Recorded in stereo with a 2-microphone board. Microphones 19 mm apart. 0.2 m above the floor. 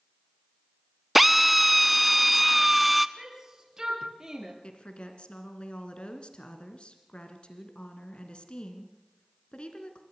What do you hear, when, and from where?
1.1 s a drill: 5° right (ahead or behind), 0.6 m
3.2 s a shout: 30° right (ahead or behind), 3.5 m
4.6 s a woman speaking: 60° left (ahead or behind), 2.5 m